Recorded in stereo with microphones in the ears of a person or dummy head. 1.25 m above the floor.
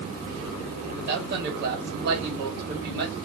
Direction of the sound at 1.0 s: 55° right (ahead or behind).